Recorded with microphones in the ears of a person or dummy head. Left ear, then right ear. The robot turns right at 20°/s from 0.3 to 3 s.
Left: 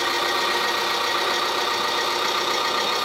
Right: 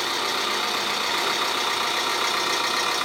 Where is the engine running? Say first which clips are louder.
Left 3 dB; 170° right, 1.4 m; by 3.0 s 115° right, 1.4 m.